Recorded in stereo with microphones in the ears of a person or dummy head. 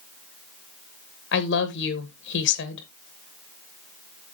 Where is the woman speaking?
60° left (ahead or behind), 1.8 m.